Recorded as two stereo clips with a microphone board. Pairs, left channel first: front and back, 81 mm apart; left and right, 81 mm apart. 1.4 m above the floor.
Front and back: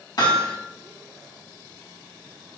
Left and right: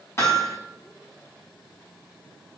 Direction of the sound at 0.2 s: 35° left.